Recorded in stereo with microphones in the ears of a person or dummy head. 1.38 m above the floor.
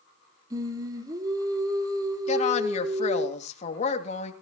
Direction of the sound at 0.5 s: 30° right (ahead or behind).